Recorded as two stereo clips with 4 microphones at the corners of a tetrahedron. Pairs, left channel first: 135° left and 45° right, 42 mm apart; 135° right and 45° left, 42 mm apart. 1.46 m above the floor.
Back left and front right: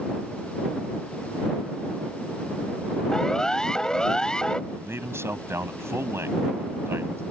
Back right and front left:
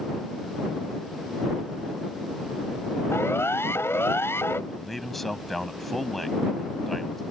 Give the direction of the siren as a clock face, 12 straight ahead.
5 o'clock.